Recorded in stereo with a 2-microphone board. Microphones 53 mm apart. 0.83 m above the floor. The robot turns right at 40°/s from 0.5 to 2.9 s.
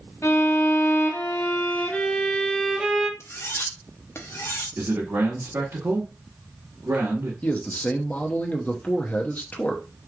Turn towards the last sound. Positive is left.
turn(degrees=30)  # may be behind; listen again after turning